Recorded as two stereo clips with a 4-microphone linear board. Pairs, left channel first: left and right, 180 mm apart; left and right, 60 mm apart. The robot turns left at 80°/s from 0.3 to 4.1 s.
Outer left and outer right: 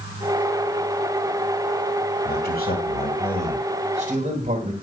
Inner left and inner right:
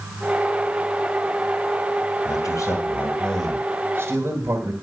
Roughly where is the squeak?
No squeak in this recording.